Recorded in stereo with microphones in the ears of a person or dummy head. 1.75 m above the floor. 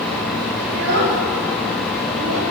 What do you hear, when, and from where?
0.7 s a child speaking: 85° right, 5 m; by 2.4 s 75° right (ahead or behind), 3 m